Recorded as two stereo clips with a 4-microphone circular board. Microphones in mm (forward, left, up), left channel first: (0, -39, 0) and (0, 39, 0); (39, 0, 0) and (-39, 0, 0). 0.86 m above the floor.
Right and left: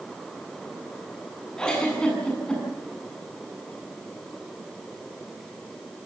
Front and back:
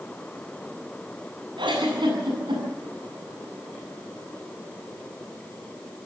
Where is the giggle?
170° right, 8.5 m.